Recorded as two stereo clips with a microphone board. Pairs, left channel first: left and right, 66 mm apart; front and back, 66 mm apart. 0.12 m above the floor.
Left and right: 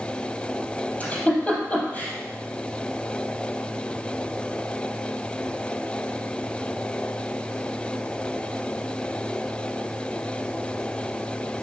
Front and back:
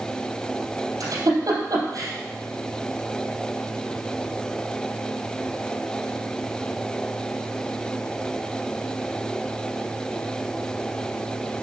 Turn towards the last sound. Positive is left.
turn(degrees=160)